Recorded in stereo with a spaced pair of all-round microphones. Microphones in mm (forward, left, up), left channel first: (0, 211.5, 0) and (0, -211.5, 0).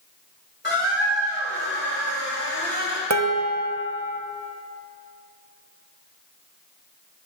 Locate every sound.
0.6 s a squeak: 25° left (ahead or behind), 2.5 m
3.1 s dishes clattering: 40° right (ahead or behind), 0.7 m